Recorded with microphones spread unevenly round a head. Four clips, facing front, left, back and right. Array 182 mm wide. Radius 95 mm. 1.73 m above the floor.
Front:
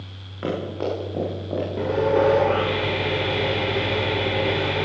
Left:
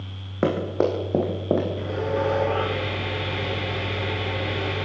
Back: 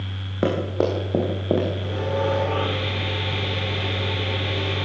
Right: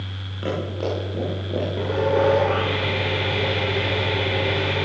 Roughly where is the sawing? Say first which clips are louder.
Right 5 dB, front 6 dB; ahead right.